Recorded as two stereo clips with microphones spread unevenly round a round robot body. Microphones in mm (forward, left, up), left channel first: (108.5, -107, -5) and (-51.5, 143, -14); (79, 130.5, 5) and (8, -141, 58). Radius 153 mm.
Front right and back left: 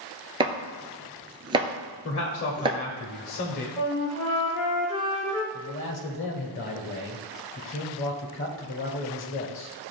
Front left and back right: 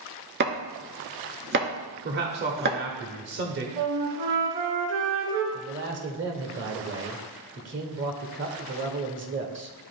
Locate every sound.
0.4 s chopping: 160° right, 0.7 m
2.0 s a man speaking: 60° right, 1.0 m
3.8 s a flute: 95° right, 2.5 m
5.5 s a man speaking: 70° right, 1.1 m